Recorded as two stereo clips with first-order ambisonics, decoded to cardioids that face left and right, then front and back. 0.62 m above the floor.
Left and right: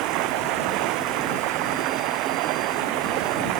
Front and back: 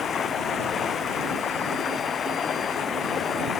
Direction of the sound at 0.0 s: 65° right.